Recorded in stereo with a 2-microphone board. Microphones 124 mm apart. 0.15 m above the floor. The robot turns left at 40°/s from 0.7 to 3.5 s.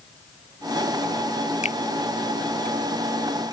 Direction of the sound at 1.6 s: 65° left (ahead or behind).